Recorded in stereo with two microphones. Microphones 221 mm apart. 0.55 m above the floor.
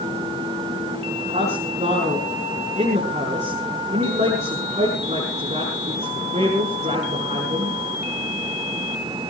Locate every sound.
1.2 s a man speaking: 30° right (ahead or behind), 6.5 m